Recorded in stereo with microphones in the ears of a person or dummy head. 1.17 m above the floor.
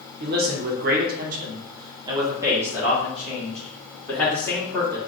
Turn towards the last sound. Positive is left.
turn(degrees=10)  # may be behind; listen again after turning